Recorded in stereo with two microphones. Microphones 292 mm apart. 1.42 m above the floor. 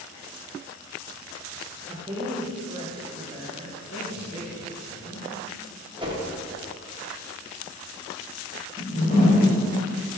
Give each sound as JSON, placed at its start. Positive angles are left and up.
{"t": 1.9, "sound": "a woman speaking", "side_deg": -15, "distance_m": 1.3}
{"t": 3.8, "sound": "a man speaking", "side_deg": 55, "distance_m": 1.8}
{"t": 6.0, "sound": "a whoosh", "side_deg": -15, "distance_m": 1.1}
{"t": 8.8, "sound": "a whoosh", "side_deg": 25, "distance_m": 1.9}